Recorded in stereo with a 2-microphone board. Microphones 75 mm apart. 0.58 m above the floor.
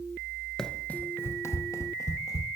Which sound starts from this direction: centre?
Running footsteps, at 0.6 s.